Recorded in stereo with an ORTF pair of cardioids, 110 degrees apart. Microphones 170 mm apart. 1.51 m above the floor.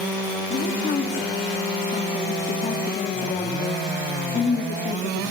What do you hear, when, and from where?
0.5 s a woman speaking: 40° left, 3 m